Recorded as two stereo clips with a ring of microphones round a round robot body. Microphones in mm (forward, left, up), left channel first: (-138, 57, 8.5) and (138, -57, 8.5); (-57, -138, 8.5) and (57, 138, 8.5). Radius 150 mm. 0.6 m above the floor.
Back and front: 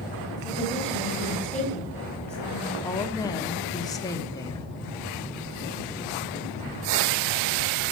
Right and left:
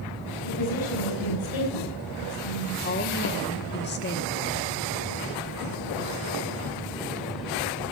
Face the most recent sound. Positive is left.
turn(degrees=-130)